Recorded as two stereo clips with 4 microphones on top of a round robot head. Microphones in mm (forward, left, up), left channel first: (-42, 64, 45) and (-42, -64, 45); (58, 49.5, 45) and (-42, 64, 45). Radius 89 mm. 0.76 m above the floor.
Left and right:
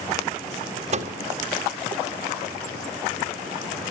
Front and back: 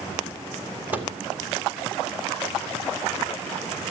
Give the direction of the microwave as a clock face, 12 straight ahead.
4 o'clock.